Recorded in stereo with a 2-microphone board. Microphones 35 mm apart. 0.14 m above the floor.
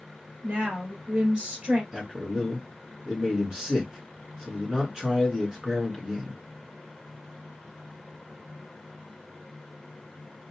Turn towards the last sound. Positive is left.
turn(degrees=-20)  # may be behind; listen again after turning